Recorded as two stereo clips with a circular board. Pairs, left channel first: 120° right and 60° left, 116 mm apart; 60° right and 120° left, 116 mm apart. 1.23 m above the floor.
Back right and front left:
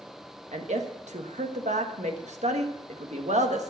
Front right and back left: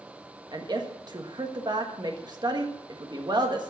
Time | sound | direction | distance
0.5 | a woman speaking | 70° left | 1.5 m